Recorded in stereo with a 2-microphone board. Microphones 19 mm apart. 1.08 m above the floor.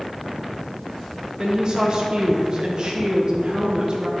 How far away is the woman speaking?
About 1.0 m.